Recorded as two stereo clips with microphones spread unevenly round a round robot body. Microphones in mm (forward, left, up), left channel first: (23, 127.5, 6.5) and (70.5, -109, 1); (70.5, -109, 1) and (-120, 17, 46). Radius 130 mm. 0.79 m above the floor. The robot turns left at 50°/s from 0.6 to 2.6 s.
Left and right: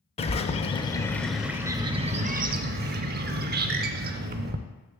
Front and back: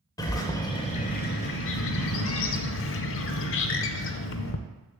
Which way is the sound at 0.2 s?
50° left.